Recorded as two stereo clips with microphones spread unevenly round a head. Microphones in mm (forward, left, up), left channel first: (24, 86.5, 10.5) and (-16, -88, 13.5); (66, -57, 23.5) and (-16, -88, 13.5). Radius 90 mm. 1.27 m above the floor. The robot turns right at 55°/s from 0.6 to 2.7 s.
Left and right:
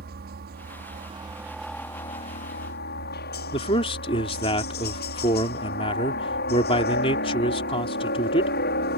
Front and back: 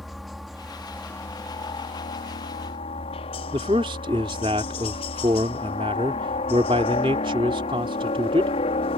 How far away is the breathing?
No breathing in this recording.